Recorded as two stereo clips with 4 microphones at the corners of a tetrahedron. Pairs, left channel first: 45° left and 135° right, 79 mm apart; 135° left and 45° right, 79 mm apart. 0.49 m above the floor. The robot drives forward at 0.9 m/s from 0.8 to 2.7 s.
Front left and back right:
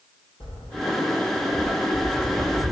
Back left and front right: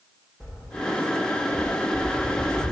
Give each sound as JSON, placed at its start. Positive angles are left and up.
{"t": 0.4, "sound": "footsteps", "azimuth_deg": 45, "distance_m": 2.5}